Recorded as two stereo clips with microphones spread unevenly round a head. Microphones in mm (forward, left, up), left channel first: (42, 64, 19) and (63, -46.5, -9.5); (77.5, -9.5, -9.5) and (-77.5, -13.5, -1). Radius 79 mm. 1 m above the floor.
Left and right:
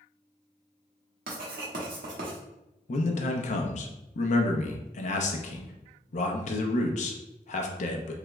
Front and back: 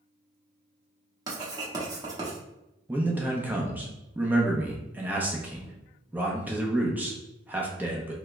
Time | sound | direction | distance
1.3 | writing | 110° right | 0.9 m
2.9 | a man speaking | 100° left | 0.5 m